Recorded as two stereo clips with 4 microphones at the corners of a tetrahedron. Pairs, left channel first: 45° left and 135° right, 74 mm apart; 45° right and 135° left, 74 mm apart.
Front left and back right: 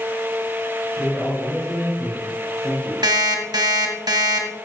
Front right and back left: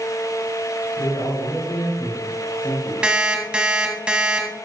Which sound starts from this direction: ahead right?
A man speaking, at 1.0 s.